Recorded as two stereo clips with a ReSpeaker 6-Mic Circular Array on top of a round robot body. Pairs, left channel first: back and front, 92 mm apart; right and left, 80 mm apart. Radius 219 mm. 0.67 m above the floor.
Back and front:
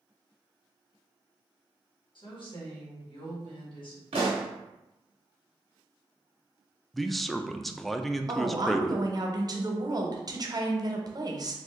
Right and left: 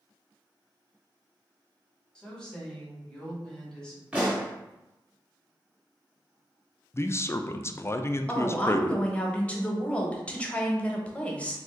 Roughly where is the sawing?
No sawing in this recording.